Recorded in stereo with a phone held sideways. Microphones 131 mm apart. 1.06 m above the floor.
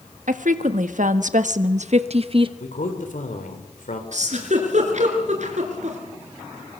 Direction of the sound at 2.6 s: 80° left.